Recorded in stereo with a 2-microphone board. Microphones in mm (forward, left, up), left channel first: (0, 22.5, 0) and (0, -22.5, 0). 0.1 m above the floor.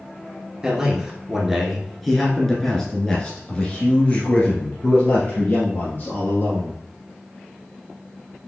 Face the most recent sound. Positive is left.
turn(degrees=35)  # may be behind; listen again after turning